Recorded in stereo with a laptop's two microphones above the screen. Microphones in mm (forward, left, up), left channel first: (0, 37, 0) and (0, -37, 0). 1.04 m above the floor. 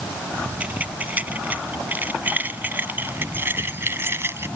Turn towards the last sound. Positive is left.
turn(degrees=-35)  # may be behind; listen again after turning